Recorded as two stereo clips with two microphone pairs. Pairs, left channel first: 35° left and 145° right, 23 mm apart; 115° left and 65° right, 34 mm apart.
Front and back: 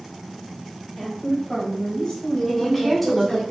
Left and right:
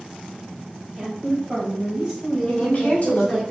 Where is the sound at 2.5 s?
125° left, 1.9 m.